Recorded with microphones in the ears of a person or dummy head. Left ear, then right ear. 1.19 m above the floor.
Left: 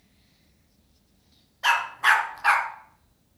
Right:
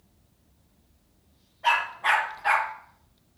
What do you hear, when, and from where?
1.6 s a dog barking: 70° left (ahead or behind), 3.5 m; by 2.7 s 50° left (ahead or behind), 3 m